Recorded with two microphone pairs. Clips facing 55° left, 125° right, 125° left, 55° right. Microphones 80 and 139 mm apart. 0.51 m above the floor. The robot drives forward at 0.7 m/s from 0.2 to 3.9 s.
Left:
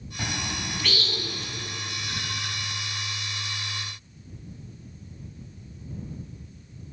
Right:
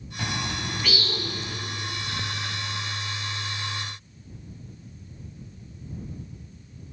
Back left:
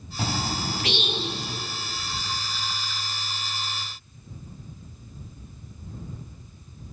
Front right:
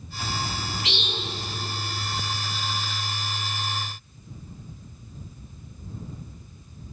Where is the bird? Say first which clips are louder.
Right 2 dB, back left 3 dB; 145° left, 0.8 m; by 1.6 s 165° left, 1.7 m.